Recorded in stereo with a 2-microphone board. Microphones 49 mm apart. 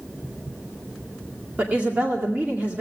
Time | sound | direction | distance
1.6 | a woman speaking | 25° right (ahead or behind) | 2 m